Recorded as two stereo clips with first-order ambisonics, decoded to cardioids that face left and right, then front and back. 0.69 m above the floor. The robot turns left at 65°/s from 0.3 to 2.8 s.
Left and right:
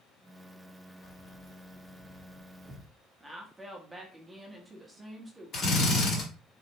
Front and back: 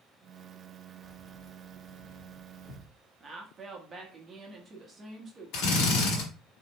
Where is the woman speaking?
155° right, 0.8 m.